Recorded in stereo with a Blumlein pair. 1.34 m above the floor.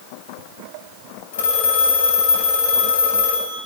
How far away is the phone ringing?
About 7 m.